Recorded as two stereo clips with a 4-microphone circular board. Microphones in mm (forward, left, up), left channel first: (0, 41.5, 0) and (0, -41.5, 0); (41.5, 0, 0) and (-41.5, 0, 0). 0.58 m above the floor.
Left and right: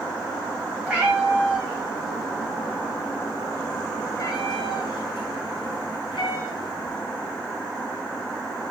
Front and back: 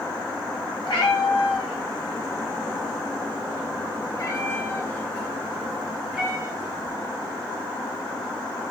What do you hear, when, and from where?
0.8 s a cat meowing: 15° right, 2.0 m; by 7.0 s 105° left, 1.7 m